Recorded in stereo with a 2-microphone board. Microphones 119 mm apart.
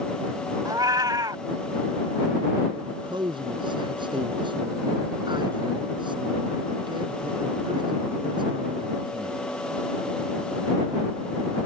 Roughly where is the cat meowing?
Right.